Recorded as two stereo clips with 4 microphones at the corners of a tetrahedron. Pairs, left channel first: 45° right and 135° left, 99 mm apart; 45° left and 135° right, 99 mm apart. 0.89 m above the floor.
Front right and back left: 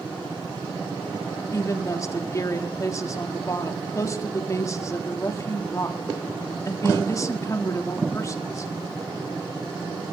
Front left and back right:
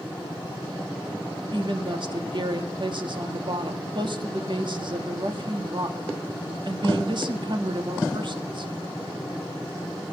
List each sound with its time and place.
1.5 s a woman speaking: 100° right, 1.6 m